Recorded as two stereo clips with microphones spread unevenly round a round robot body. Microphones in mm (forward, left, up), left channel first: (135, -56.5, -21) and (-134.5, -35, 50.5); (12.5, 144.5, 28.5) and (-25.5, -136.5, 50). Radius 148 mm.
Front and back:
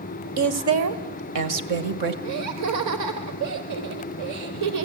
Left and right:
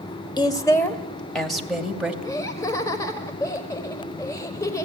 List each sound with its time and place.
0.4 s a woman speaking: 150° left, 1.6 m; by 2.1 s 175° left, 2.5 m
2.2 s laughter: 155° left, 1.3 m